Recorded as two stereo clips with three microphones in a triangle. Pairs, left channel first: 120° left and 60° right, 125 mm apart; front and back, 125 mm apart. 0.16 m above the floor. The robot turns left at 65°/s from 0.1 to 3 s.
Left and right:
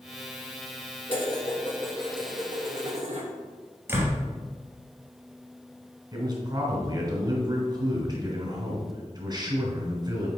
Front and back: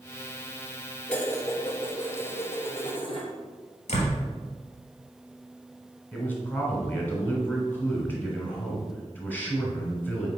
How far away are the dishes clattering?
About 1.9 m.